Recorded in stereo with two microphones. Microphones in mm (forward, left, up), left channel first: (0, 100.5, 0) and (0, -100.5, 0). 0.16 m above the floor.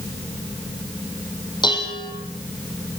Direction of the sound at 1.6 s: 20° left (ahead or behind).